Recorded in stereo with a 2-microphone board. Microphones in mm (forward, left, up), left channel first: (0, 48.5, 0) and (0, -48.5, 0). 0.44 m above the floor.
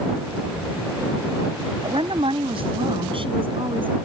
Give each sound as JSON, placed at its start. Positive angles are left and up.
{"t": 1.8, "sound": "a woman speaking", "side_deg": -70}